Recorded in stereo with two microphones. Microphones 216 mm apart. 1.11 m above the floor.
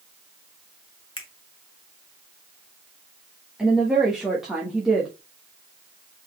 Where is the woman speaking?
5° right (ahead or behind), 1.1 m.